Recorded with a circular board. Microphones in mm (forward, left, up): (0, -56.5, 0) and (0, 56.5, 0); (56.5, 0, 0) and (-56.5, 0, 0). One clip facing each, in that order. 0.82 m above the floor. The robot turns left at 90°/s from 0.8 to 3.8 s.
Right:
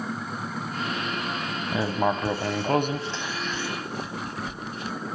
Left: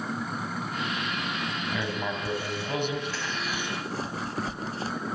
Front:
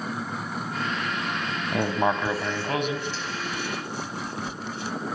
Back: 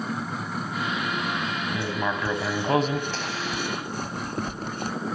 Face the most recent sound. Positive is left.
turn(degrees=145)